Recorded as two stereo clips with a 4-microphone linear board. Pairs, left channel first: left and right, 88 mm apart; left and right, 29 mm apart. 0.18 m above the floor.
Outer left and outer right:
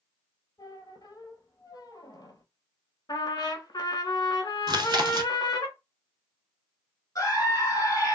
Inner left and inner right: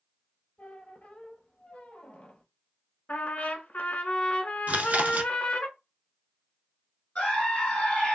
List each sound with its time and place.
0.6 s a squeak: 50° left (ahead or behind), 0.6 m
3.1 s a trumpet: 60° left (ahead or behind), 0.7 m
4.7 s chewing: 55° right (ahead or behind), 0.5 m
7.2 s a scream: 40° left (ahead or behind), 2 m